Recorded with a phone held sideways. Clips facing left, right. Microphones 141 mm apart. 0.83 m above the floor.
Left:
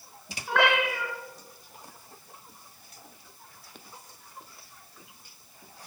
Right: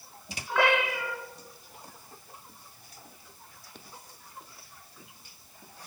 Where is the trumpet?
I don't hear a trumpet.